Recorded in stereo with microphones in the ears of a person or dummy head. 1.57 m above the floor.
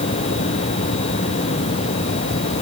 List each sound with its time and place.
Only background noise.